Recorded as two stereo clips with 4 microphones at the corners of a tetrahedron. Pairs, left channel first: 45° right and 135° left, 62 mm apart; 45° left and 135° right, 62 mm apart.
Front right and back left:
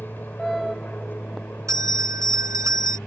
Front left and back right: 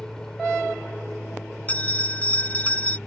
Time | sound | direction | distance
0.0 | an aircraft | 25° right | ?
1.7 | a bell | 110° left | ?